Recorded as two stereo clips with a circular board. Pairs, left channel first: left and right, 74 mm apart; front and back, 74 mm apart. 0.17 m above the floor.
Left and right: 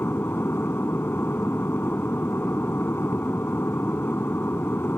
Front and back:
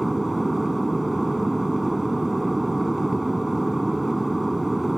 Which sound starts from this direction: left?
An aircraft, at 0.0 s.